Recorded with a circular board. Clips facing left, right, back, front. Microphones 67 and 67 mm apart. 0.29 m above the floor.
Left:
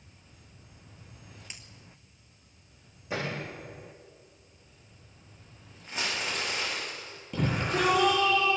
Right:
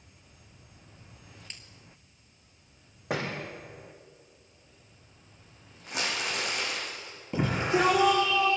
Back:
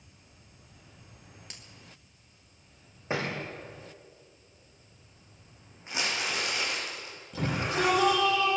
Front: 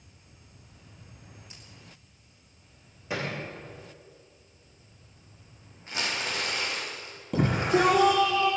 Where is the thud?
120° right, 5.5 m.